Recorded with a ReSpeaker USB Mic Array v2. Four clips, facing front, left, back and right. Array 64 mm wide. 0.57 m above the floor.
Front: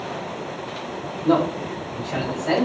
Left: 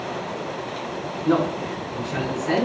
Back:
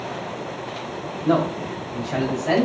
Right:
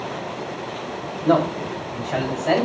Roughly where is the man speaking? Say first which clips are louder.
Right 2 dB, front 1 dB; right.